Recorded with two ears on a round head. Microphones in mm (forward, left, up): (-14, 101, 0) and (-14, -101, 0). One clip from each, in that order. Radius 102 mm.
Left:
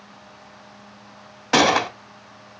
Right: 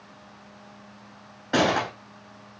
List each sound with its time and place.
1.5 s a gunshot: 70° left (ahead or behind), 0.6 m